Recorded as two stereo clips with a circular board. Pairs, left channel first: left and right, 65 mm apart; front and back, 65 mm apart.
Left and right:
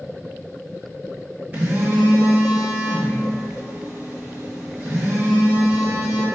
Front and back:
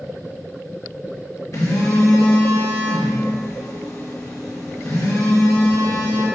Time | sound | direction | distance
1.5 | a phone buzzing | 30° right | 1.5 m